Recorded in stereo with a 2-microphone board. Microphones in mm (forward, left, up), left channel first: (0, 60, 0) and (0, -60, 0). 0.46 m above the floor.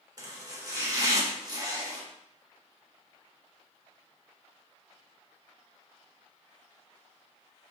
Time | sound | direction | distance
0.2 | chopping | 30° right (ahead or behind) | 0.9 m